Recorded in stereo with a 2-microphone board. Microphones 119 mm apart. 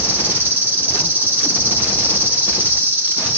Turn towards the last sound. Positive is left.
turn(degrees=-15)  # may be behind; listen again after turning